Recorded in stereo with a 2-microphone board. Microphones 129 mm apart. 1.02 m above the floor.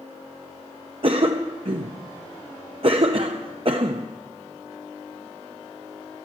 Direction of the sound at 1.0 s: 50° right (ahead or behind).